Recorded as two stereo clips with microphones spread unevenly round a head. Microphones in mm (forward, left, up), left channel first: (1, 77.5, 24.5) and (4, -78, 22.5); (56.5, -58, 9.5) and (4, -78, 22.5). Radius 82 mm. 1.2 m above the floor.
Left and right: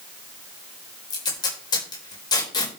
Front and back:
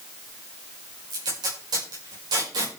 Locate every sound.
1.1 s tape being pulled: 160° left, 5.5 m